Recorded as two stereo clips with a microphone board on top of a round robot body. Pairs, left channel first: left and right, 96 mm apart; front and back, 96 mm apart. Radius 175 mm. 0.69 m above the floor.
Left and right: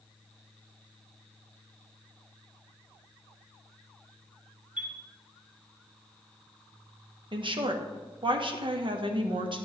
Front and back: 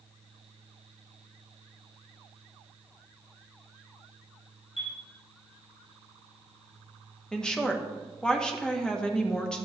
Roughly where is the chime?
Ahead.